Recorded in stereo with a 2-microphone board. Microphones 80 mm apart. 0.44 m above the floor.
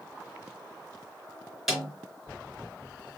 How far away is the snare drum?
About 3.5 m.